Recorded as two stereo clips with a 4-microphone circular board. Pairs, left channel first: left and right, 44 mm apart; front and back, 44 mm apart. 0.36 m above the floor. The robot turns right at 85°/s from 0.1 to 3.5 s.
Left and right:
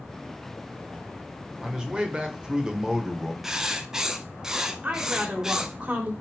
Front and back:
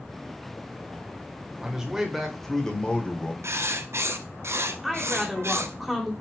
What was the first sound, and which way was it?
A man speaking, 145° right.